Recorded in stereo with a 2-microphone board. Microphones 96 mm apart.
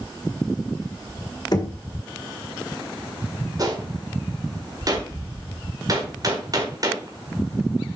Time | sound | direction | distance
1.5 | knocking | 45° left (ahead or behind) | 1.5 m
3.6 | a gunshot | 40° right (ahead or behind) | 1.9 m